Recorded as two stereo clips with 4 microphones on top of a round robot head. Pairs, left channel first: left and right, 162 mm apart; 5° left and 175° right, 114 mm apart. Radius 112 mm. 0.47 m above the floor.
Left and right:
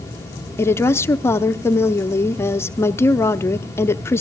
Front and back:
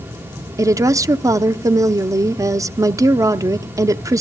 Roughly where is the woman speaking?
Behind left.